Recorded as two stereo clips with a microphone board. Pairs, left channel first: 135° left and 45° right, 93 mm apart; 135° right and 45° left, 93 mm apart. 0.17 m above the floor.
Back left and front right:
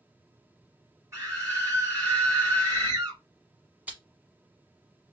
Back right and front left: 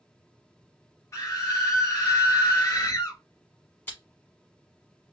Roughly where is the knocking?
No knocking in this recording.